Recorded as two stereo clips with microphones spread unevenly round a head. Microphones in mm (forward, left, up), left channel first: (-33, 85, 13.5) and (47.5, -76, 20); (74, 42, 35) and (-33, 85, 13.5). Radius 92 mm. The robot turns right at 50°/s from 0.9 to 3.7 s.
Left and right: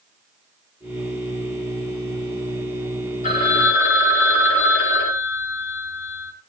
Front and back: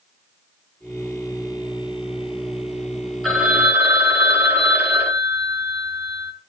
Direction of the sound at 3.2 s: 65° left.